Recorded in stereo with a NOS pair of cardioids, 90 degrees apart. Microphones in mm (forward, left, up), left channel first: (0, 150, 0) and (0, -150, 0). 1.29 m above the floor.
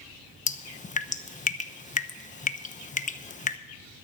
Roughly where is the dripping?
Ahead left.